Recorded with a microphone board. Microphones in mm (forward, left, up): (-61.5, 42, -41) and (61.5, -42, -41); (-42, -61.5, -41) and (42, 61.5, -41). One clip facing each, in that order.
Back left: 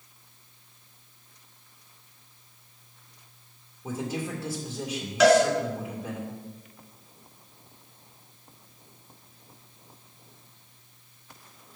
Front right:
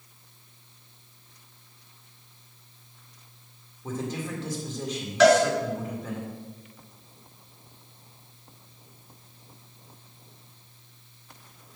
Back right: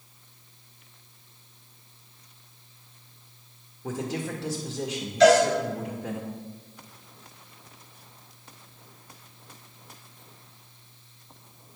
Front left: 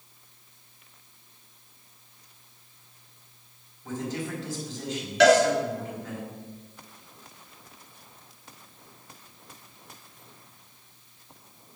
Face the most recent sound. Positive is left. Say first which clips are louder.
# front right 1 dB, back right 1 dB
turn(degrees=60)